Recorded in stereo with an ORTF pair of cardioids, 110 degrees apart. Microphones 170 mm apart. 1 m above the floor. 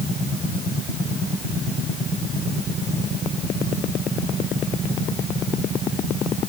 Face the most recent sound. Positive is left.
No sound to turn to.